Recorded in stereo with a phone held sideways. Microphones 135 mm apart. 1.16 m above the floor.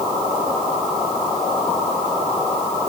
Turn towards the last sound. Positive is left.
No sound to turn to.